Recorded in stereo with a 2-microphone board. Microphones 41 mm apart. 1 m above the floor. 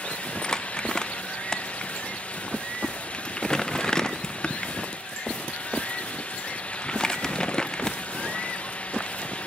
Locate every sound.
0.4 s crumpling: 15° left (ahead or behind), 0.6 m